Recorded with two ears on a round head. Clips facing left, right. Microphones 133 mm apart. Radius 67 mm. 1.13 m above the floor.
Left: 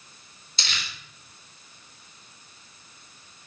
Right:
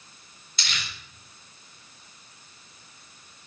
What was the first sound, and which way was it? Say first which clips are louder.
Crumpling: even; 25° left (ahead or behind).